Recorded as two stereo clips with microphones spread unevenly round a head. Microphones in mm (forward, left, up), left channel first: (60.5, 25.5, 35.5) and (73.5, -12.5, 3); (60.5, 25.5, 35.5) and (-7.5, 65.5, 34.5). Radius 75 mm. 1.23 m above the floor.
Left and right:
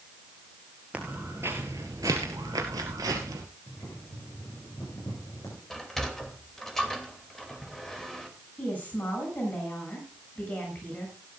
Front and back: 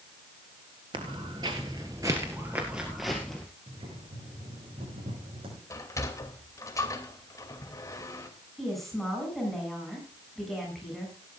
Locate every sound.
0.9 s footsteps: 175° left, 1.6 m; by 3.5 s 115° right, 1.9 m
3.7 s boiling: 165° left, 7.5 m
5.7 s a sliding door: 20° left, 2.5 m
8.6 s a woman speaking: 60° left, 7 m